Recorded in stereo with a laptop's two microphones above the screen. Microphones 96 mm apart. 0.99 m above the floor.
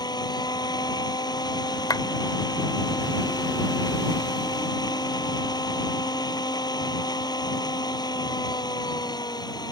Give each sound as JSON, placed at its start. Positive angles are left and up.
{"t": 0.0, "sound": "a machine running", "side_deg": 45}
{"t": 1.9, "sound": "a clap", "side_deg": 45}